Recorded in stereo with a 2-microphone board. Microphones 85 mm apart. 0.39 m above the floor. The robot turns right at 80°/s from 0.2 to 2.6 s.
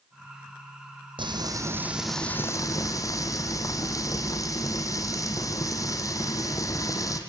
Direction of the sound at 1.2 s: 75° right.